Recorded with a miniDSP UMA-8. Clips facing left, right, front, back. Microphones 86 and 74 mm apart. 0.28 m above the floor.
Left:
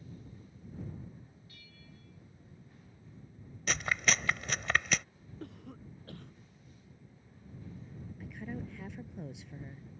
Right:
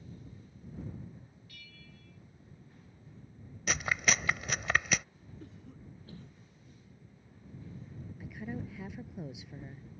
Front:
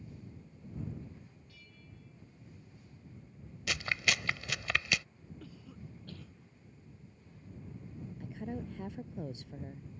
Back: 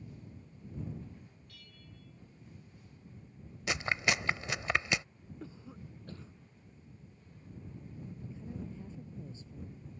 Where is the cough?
115° left.